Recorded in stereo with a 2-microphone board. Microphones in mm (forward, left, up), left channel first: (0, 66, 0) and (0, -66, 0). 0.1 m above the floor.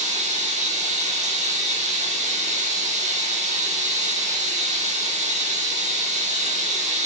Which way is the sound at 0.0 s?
65° right (ahead or behind).